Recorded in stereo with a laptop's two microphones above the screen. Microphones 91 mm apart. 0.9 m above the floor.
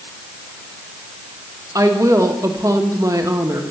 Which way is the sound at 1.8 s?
40° right (ahead or behind).